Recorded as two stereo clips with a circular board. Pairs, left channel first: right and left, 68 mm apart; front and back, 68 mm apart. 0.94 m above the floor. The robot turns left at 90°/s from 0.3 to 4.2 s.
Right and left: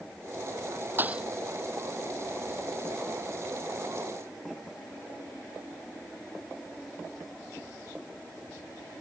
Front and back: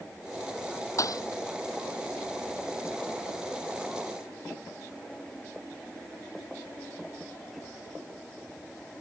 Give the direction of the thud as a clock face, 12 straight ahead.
11 o'clock.